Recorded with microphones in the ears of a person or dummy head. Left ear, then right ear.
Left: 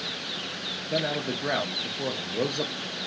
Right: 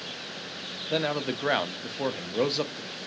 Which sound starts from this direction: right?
A man speaking, at 0.9 s.